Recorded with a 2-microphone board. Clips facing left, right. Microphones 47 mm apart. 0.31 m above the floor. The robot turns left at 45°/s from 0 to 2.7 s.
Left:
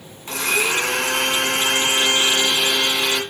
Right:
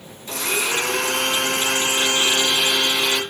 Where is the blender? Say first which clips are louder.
Left 3 dB; 125° left, 1.3 m; by 3.2 s 15° left, 1.3 m.